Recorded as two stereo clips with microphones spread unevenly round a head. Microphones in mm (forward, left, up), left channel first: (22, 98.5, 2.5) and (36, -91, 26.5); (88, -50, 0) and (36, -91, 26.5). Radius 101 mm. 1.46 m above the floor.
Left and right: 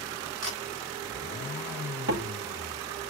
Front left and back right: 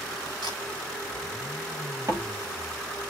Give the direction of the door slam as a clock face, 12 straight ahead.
3 o'clock.